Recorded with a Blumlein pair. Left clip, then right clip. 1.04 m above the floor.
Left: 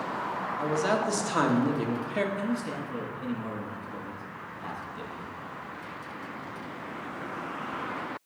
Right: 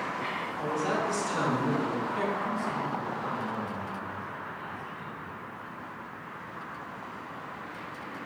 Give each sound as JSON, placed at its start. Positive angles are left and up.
{"t": 0.6, "sound": "a man speaking", "azimuth_deg": 65, "distance_m": 1.0}
{"t": 2.4, "sound": "a man speaking", "azimuth_deg": 35, "distance_m": 1.8}